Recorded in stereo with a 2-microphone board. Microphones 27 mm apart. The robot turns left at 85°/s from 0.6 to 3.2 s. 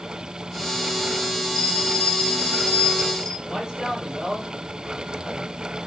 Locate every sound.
1.5 s a bell: 165° left, 6 m; by 3.3 s 25° left, 6 m
3.4 s a man speaking: 25° right (ahead or behind), 8 m